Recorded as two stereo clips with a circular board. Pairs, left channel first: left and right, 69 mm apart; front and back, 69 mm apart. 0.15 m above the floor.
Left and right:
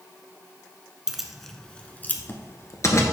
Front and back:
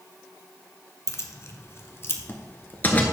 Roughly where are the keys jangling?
Ahead.